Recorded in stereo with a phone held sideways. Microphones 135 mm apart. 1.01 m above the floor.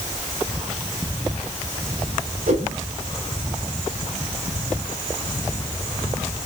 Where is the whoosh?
80° right, 3 m.